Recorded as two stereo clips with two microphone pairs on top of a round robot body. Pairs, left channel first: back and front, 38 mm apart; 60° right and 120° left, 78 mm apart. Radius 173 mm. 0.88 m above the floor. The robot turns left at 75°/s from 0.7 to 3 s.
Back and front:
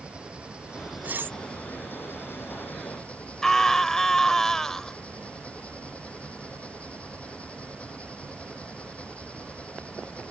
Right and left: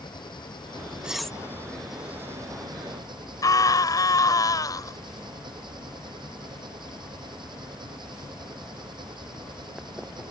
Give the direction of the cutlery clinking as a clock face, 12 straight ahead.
11 o'clock.